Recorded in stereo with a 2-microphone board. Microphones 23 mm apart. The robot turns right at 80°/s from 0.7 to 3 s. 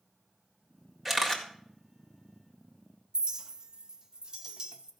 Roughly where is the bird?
No bird in this recording.